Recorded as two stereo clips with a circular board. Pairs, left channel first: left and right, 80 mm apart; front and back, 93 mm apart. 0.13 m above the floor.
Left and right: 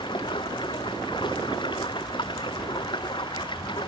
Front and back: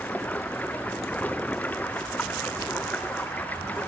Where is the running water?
75° left.